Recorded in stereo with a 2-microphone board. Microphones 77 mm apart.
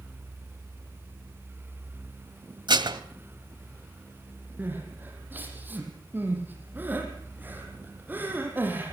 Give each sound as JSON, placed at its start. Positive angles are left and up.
{"t": 2.7, "sound": "dishes clattering", "side_deg": -80, "distance_m": 1.8}
{"t": 4.6, "sound": "crying", "side_deg": -25, "distance_m": 5.5}